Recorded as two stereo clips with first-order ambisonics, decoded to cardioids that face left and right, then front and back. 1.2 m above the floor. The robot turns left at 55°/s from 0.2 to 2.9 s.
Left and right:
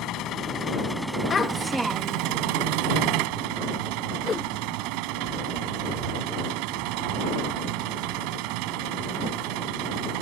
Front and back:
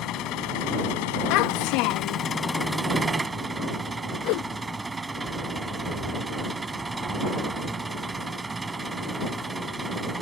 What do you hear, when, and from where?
0.0 s an engine running: 45° left; by 10.2 s 105° right
1.3 s a child speaking: 25° left; by 2.3 s 30° right
4.2 s a whoosh: 15° left